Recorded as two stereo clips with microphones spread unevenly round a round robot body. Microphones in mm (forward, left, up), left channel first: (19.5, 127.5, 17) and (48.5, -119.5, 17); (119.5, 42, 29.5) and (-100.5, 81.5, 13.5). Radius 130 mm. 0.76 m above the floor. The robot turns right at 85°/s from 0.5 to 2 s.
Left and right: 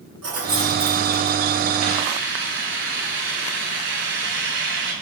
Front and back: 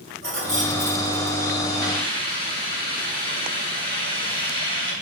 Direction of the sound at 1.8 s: 55° right.